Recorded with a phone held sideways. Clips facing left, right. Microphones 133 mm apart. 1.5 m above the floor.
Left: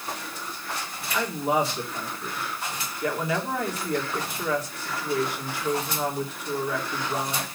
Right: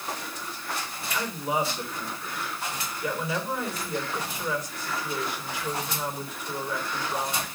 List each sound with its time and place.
1.1 s a woman speaking: 70° left (ahead or behind), 3.5 m